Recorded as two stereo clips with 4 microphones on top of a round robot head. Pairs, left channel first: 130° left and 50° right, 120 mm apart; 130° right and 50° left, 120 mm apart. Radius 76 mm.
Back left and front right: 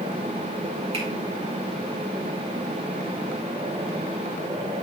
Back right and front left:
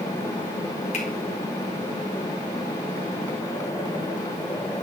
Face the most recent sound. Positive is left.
turn(degrees=-100)